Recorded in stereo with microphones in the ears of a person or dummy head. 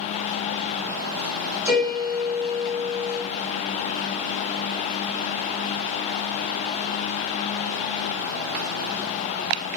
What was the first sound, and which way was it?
A piano, 10° right (ahead or behind).